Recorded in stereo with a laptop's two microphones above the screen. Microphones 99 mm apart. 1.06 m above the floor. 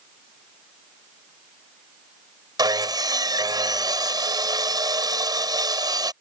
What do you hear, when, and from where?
2.6 s sawing: 40° right (ahead or behind)